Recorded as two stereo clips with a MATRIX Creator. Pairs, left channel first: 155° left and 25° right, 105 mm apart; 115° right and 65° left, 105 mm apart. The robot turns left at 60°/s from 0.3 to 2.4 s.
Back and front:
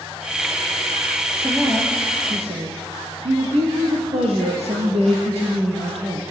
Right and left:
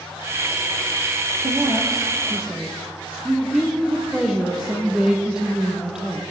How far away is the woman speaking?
About 4 m.